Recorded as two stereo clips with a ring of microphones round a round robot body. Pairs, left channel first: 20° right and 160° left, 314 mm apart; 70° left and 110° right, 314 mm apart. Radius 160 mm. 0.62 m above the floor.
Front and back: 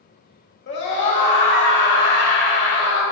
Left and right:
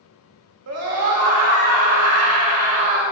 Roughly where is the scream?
Right.